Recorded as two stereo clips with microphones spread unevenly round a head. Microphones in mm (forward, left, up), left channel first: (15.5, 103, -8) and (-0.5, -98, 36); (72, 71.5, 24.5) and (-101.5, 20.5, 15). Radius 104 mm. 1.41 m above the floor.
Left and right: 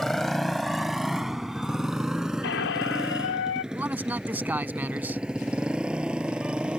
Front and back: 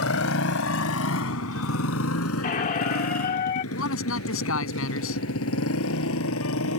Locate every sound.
0.0 s a motorcycle: 5° right; by 6.8 s 10° right
2.4 s a squeak: 50° left
3.7 s a man speaking: 15° right